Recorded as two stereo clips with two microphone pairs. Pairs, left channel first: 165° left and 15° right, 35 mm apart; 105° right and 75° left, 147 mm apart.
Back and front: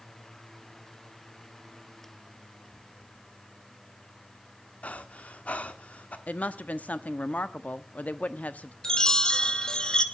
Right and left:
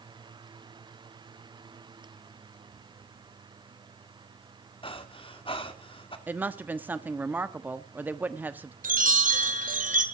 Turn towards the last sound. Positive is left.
turn(degrees=95)